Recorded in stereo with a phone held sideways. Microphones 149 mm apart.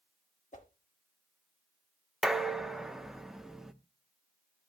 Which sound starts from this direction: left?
A whoosh, at 0.5 s.